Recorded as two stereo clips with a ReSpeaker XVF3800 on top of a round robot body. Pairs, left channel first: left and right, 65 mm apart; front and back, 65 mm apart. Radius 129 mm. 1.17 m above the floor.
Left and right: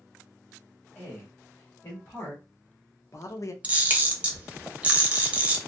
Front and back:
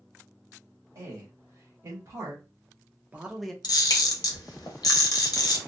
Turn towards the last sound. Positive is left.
turn(degrees=-20)